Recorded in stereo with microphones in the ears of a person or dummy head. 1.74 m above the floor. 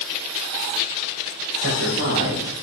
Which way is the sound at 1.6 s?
60° right (ahead or behind).